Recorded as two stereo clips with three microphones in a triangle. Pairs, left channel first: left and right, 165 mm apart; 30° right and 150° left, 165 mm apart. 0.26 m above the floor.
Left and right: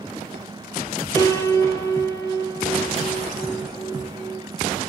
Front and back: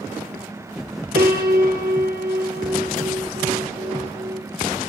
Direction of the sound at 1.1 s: 160° left.